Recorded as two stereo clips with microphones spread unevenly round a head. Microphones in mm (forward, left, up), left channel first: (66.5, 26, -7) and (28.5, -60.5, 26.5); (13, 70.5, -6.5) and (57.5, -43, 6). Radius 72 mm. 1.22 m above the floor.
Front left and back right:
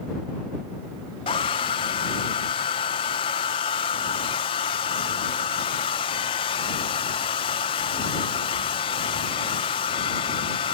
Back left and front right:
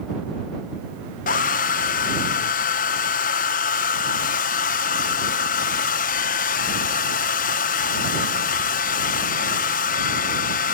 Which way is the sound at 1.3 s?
105° left.